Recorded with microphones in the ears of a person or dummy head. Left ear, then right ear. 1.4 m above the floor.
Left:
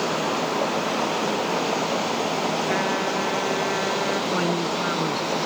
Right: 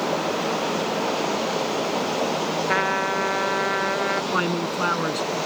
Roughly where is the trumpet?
Right.